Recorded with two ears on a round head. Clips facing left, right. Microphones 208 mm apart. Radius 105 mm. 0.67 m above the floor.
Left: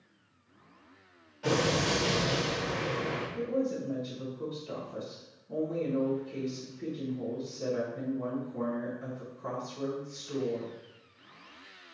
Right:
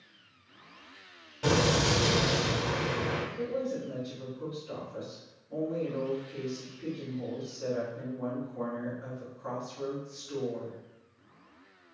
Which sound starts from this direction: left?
A woman speaking, at 3.4 s.